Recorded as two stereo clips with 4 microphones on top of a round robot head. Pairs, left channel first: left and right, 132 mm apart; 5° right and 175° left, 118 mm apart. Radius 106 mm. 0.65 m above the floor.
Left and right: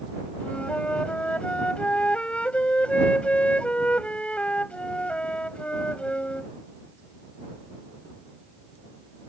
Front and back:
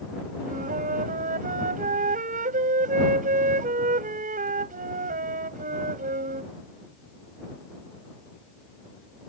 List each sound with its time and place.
0.4 s a flute: 170° left